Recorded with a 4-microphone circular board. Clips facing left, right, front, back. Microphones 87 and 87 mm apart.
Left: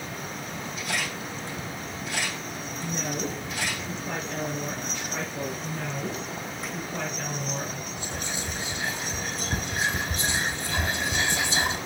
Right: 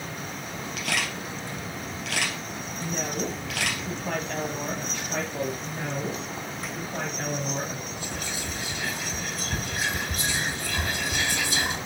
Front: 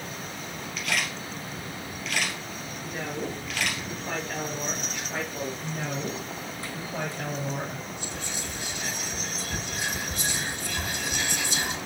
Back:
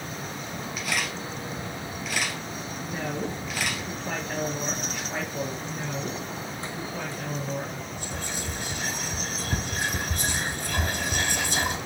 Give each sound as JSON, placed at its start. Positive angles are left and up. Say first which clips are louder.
{"t": 0.8, "sound": "a camera shutter", "louder": "right 2 dB, even", "azimuth_deg": -100, "distance_m": 3.0}
{"t": 2.8, "sound": "a woman speaking", "louder": "right 1 dB, back 2 dB", "azimuth_deg": -95, "distance_m": 2.5}
{"t": 5.6, "sound": "a woman speaking", "louder": "right 1 dB, even", "azimuth_deg": -30, "distance_m": 2.5}
{"t": 8.0, "sound": "whispering", "louder": "even, back 2 dB", "azimuth_deg": 150, "distance_m": 1.5}